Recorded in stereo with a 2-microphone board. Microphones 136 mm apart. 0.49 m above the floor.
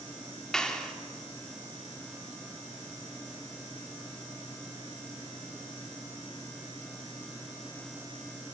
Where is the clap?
5° left (ahead or behind), 1.1 m.